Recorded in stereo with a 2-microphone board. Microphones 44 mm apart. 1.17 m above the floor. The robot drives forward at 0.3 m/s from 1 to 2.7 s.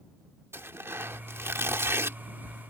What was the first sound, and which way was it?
Tearing paper, 75° right (ahead or behind).